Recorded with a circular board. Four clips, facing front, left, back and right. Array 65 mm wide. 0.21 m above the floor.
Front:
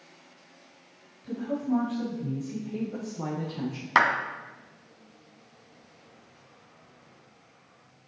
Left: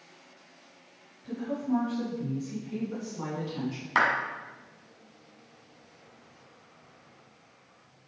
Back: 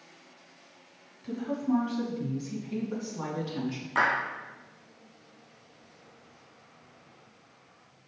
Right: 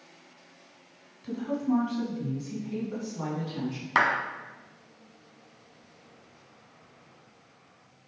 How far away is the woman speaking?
About 1.9 m.